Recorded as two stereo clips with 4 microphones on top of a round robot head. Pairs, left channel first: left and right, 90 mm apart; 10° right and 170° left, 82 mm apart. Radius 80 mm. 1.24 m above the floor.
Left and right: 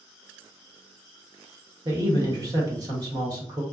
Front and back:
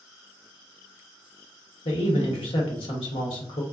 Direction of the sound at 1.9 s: 35° right.